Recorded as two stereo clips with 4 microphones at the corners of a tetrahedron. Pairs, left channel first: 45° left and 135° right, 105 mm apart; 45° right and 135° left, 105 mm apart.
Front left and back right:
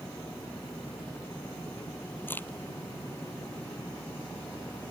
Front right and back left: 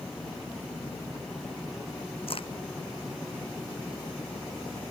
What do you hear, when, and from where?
2.3 s a crack: 25° right